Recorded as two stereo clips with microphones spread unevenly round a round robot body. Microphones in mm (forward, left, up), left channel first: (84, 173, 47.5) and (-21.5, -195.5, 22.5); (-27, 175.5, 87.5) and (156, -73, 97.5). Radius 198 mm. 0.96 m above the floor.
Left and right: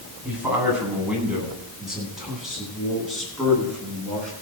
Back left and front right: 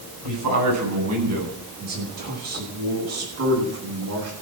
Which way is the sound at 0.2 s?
20° right.